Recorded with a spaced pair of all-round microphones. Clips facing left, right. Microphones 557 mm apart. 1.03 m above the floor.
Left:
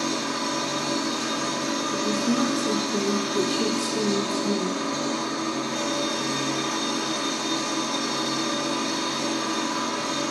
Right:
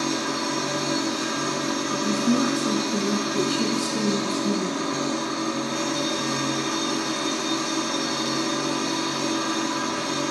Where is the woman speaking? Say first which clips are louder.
Right 2 dB; 20° right (ahead or behind), 1.3 m.